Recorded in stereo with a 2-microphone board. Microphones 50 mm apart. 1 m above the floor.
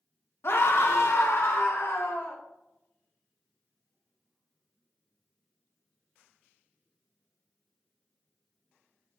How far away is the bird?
No bird in this recording.